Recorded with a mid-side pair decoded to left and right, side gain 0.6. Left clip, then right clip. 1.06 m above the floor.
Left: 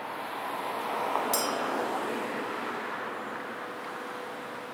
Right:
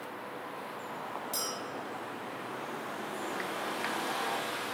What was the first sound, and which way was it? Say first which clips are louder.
A clink: left 6 dB; 45° left.